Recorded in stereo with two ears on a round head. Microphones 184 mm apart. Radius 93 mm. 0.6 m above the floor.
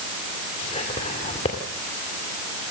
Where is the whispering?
30° left (ahead or behind), 2 m.